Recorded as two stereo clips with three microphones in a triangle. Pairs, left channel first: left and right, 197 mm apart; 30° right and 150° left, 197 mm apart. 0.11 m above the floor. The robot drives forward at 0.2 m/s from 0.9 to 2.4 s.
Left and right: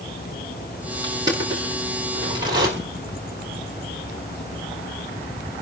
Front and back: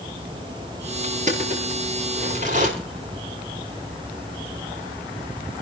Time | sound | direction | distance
1.0 | crushing | 160° right | 7.5 m